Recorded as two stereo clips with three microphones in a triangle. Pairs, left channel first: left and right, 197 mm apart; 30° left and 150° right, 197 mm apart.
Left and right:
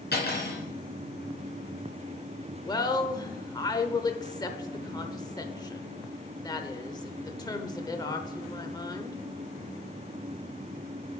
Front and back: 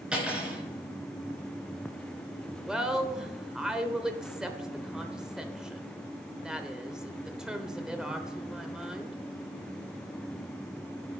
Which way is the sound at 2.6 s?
130° left.